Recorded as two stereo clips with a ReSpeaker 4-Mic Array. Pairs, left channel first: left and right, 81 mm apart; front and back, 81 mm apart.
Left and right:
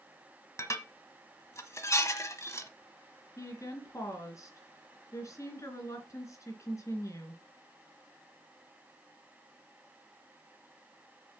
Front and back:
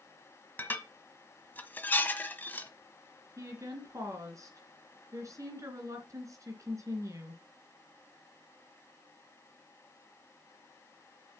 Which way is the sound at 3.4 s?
135° left.